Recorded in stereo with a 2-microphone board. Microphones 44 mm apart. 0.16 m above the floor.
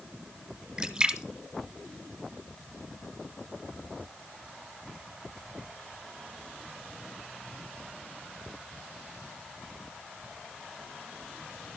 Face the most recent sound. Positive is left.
turn(degrees=-15)  # may be behind; listen again after turning